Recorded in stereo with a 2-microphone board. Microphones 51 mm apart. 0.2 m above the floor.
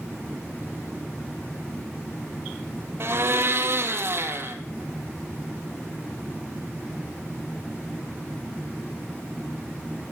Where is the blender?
50° right (ahead or behind), 1.1 m.